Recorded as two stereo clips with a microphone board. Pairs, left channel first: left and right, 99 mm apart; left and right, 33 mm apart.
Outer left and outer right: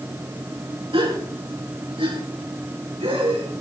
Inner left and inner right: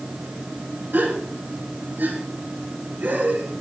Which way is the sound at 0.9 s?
70° right (ahead or behind).